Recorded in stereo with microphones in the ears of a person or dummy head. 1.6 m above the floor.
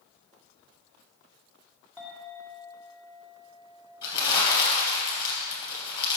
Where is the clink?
10° left (ahead or behind), 2 m.